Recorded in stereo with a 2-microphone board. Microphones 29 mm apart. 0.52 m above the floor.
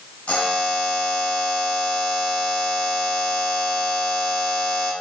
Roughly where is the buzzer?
Left.